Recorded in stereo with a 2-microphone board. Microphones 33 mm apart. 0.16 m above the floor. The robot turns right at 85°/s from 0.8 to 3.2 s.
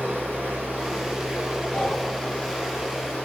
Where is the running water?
100° right, 1.9 m; by 3.3 s 105° left, 1.9 m.